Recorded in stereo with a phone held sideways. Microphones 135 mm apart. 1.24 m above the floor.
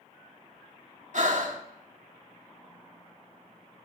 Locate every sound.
1.1 s breathing: 65° right (ahead or behind), 1.3 m